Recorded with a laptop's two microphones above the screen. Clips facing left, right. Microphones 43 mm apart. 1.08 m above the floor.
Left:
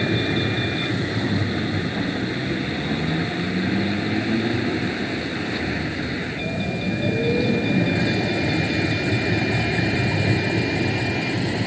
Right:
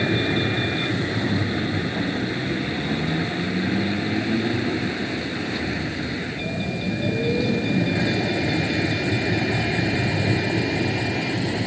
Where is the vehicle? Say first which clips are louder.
Even; 5° right (ahead or behind); by 11.7 s 20° left (ahead or behind).